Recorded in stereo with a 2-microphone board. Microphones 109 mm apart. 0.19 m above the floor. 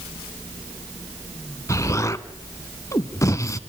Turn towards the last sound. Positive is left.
turn(degrees=30)  # may be behind; listen again after turning